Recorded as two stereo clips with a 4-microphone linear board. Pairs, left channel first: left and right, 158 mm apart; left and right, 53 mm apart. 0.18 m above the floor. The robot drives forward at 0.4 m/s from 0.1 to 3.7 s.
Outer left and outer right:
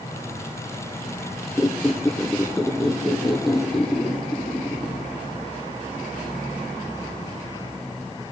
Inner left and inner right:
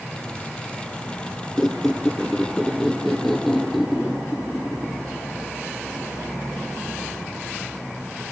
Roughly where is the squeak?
Centre.